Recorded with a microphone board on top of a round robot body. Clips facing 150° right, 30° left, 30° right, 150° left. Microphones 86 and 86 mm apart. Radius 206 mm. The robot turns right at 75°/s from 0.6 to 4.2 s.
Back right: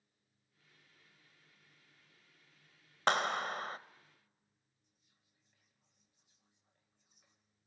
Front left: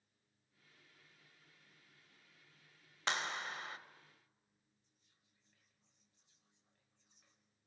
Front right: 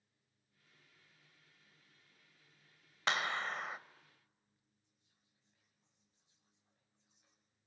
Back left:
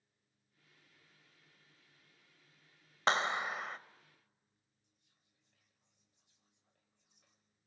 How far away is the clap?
About 1.0 m.